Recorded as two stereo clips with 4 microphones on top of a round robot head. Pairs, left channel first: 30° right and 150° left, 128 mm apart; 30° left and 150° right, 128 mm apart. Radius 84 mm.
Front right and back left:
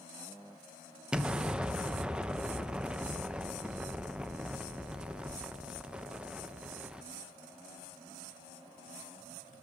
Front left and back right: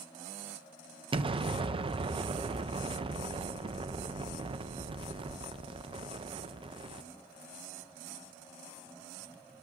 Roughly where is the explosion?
Behind right.